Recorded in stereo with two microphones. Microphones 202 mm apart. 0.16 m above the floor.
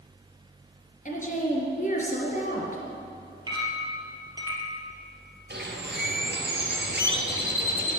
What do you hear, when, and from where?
1.1 s a woman speaking: 40° left (ahead or behind), 3 m
3.5 s a clink: 20° right (ahead or behind), 3 m
5.5 s a bird: 55° right (ahead or behind), 2 m